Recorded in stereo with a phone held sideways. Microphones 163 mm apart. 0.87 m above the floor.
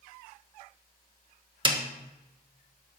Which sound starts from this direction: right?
A snare drum, at 1.6 s.